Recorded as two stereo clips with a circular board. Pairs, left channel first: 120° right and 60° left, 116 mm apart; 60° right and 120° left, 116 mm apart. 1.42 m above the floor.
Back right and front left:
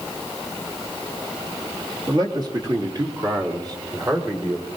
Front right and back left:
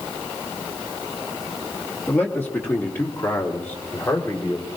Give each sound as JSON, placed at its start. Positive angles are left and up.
{"t": 2.1, "sound": "a man speaking", "azimuth_deg": 10, "distance_m": 2.0}